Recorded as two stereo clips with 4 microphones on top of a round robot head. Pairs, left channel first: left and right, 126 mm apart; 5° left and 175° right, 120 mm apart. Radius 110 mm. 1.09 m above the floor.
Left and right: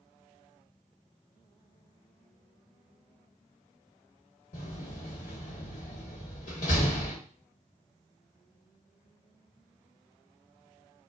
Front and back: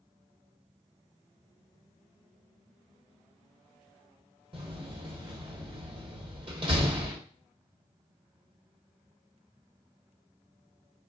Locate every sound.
4.5 s a door slam: 135° left, 0.9 m